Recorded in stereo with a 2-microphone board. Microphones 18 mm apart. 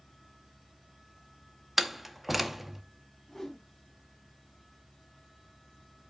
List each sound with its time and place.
1.8 s a door slam: 5° right (ahead or behind), 0.7 m
3.3 s a whoosh: 20° left (ahead or behind), 5 m